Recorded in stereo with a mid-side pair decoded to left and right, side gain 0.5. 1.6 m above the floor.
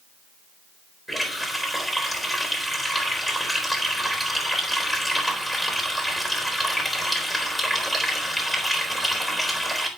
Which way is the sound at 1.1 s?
5° right.